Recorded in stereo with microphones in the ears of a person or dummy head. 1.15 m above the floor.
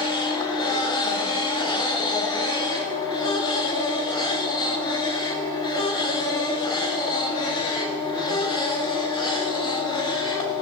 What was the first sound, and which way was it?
A machine running, 25° left (ahead or behind).